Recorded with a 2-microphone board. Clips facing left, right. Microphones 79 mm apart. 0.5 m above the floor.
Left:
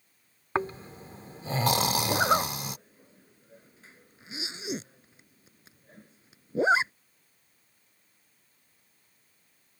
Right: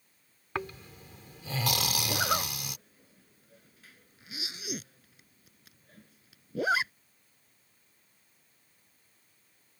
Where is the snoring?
30° left (ahead or behind).